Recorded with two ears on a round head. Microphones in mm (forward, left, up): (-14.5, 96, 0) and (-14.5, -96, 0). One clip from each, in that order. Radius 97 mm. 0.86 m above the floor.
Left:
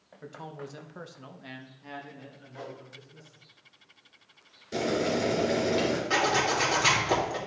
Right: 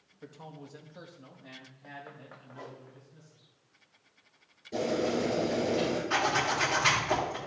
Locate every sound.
0.2 s a man speaking: 10° left (ahead or behind), 1.1 m; by 3.4 s 35° left (ahead or behind), 2.5 m
2.5 s a whoosh: 75° left (ahead or behind), 1.9 m
4.7 s boiling: 40° left (ahead or behind), 3.5 m
6.1 s a zipper: 30° left (ahead or behind), 2.5 m